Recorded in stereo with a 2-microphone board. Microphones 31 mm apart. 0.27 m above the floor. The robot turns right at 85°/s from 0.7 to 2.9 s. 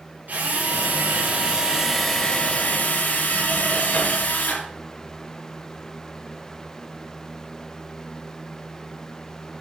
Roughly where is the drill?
Right.